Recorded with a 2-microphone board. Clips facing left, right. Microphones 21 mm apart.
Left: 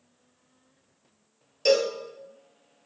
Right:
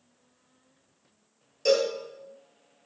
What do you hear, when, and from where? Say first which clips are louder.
1.6 s a cowbell: left 1 dB; 30° left (ahead or behind), 0.7 m